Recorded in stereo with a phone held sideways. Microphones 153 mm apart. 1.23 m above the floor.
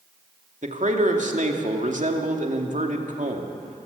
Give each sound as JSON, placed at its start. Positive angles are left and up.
{"t": 0.6, "sound": "a man speaking", "side_deg": -55, "distance_m": 2.5}